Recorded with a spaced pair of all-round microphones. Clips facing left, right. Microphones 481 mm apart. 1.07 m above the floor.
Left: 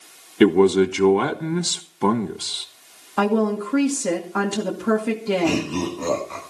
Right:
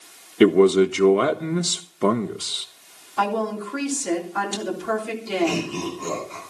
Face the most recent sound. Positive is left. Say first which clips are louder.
# left 3 dB
turn(degrees=80)